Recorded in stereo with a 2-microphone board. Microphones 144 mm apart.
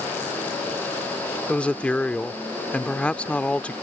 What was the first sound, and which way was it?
A woman speaking, 10° left (ahead or behind).